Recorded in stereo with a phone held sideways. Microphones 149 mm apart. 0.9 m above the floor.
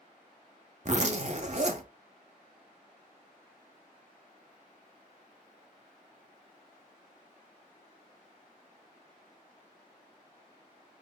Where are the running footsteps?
I don't hear running footsteps.